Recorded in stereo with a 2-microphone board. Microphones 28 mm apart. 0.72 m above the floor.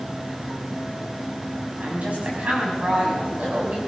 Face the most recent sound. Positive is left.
turn(degrees=-50)  # may be behind; listen again after turning